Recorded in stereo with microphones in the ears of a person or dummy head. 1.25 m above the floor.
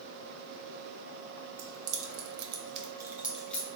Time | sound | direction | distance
1.6 | keys jangling | 85° right | 0.8 m